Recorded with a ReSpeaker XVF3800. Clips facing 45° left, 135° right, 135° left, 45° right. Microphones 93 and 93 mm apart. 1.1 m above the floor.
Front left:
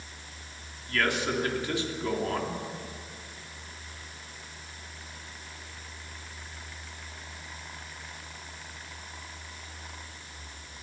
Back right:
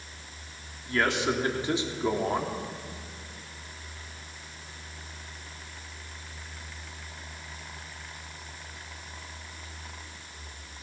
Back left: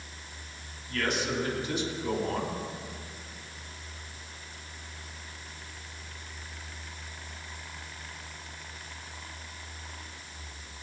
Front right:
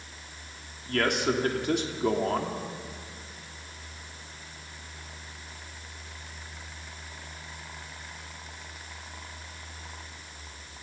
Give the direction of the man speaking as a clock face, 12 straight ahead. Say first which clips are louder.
Back right 2 dB, front right 5 dB; 2 o'clock.